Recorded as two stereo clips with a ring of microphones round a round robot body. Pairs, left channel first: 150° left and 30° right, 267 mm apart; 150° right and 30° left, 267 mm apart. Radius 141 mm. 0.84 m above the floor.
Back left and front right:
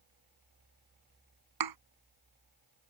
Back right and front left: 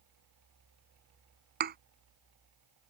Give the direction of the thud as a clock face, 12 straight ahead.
1 o'clock.